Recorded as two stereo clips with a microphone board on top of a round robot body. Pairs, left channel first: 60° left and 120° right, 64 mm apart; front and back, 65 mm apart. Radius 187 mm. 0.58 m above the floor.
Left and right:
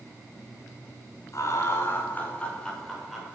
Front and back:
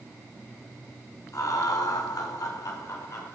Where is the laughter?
25° left, 2.5 m; by 3.4 s 35° right, 3 m.